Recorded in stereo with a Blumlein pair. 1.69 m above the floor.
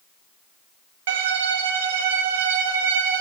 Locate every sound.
1.1 s a violin: 55° right, 0.6 m